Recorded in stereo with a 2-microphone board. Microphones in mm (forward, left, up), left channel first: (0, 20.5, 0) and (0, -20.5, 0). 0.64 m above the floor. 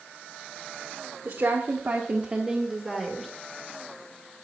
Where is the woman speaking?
60° right (ahead or behind), 1.3 m; by 3.3 s centre (ahead or behind), 2 m.